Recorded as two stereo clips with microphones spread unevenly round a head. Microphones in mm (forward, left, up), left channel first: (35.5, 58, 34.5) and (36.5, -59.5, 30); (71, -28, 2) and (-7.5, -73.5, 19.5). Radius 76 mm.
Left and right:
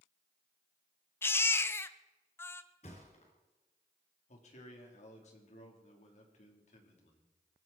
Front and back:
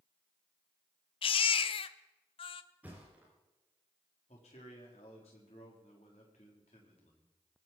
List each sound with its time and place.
1.2 s a baby crying: 25° left, 0.7 m
2.8 s a thud: 135° left, 4 m
4.3 s a man speaking: 70° left, 4 m